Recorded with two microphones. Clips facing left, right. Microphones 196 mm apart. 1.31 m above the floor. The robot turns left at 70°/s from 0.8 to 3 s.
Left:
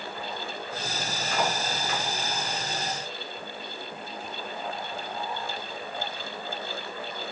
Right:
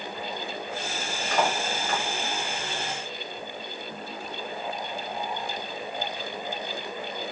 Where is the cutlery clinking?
75° right (ahead or behind), 1.7 m; by 2.0 s 40° right (ahead or behind), 1.7 m.